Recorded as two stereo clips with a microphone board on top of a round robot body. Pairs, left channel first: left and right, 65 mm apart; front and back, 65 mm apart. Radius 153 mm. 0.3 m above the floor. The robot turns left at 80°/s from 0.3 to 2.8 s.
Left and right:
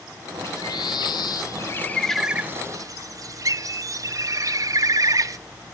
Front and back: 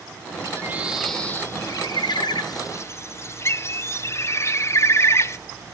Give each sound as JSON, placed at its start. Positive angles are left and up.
{"t": 0.4, "sound": "a bird", "azimuth_deg": 135, "distance_m": 0.5}